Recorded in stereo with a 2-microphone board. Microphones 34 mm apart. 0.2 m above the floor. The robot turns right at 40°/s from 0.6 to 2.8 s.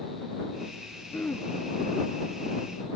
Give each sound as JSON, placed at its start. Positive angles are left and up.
{"t": 1.1, "sound": "throat clearing", "side_deg": 65}